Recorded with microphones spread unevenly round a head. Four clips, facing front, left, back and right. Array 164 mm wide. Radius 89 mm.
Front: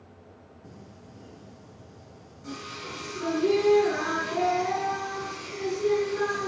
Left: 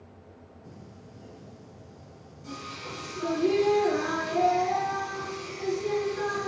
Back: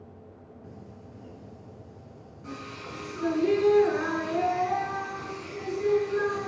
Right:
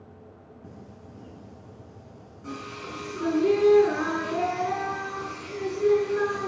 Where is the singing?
80° right, 6 m.